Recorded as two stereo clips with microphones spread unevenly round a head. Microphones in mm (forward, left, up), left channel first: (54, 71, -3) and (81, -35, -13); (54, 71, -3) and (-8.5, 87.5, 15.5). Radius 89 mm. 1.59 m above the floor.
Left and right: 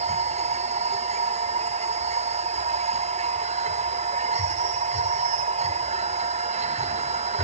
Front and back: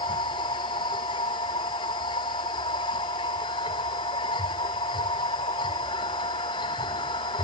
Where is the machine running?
60° right.